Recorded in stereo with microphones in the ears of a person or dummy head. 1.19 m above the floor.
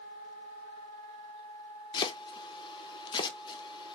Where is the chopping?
20° left (ahead or behind), 0.5 m.